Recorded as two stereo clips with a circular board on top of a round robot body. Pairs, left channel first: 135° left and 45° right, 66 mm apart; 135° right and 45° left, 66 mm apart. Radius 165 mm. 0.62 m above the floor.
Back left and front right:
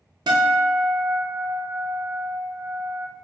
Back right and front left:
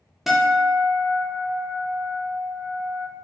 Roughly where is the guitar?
Ahead right.